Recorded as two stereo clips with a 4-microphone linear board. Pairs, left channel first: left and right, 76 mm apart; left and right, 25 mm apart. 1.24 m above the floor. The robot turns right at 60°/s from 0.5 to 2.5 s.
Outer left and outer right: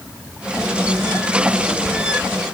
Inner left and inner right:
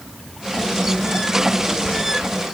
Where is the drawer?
No drawer in this recording.